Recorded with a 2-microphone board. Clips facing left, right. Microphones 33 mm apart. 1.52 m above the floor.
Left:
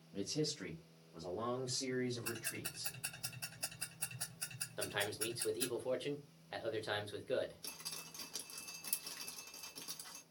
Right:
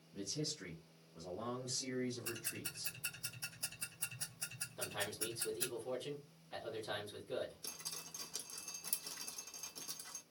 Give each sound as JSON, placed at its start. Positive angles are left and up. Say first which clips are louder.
{"t": 0.1, "sound": "a man speaking", "louder": "left 4 dB", "side_deg": 50, "distance_m": 0.7}
{"t": 2.2, "sound": "ticking", "louder": "left 2 dB", "side_deg": 55, "distance_m": 2.0}
{"t": 4.8, "sound": "a man speaking", "louder": "left 3 dB", "side_deg": 40, "distance_m": 1.0}
{"t": 7.6, "sound": "dripping", "louder": "even", "side_deg": 25, "distance_m": 0.8}